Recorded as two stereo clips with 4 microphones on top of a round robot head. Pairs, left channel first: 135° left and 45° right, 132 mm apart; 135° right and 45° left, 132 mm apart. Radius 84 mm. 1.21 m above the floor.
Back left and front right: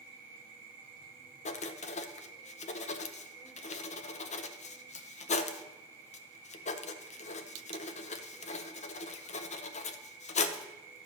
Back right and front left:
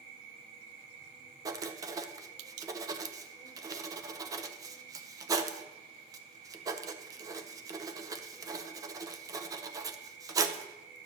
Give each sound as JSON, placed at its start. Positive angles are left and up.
{"t": 0.0, "sound": "an insect", "azimuth_deg": 5, "distance_m": 1.8}
{"t": 1.4, "sound": "writing", "azimuth_deg": 110, "distance_m": 0.6}